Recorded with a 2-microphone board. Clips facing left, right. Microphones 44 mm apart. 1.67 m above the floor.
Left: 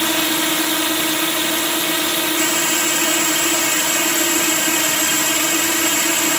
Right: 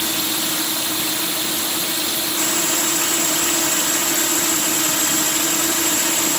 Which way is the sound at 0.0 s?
55° left (ahead or behind).